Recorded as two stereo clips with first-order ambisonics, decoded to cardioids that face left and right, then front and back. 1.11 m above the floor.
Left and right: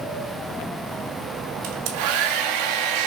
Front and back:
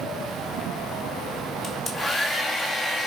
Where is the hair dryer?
85° right, 2.5 m.